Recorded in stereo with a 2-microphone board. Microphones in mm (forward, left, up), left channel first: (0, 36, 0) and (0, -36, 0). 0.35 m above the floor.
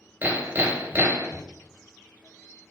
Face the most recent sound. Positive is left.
turn(degrees=-30)  # may be behind; listen again after turning